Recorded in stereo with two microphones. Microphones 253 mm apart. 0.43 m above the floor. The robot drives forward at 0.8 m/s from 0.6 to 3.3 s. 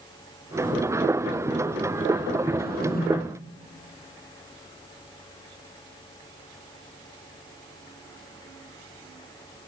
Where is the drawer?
40° left (ahead or behind), 8 m; by 3.1 s 35° left (ahead or behind), 8.5 m.